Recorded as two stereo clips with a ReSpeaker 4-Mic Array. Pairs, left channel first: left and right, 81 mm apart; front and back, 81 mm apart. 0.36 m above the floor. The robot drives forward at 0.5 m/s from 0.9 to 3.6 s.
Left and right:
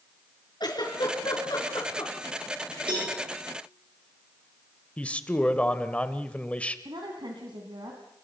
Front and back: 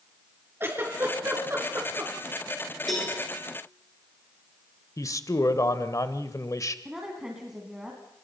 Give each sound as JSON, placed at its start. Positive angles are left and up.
{"t": 0.6, "sound": "a giggle", "azimuth_deg": 120, "distance_m": 4.5}
{"t": 2.9, "sound": "a cowbell", "azimuth_deg": -90, "distance_m": 10.0}
{"t": 5.0, "sound": "a man speaking", "azimuth_deg": 20, "distance_m": 1.2}
{"t": 6.8, "sound": "a woman speaking", "azimuth_deg": -100, "distance_m": 3.0}